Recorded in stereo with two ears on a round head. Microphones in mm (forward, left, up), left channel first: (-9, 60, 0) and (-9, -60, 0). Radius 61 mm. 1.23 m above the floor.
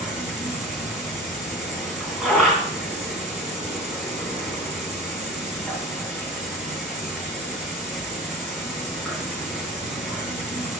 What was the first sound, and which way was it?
An insect, 5° right (ahead or behind).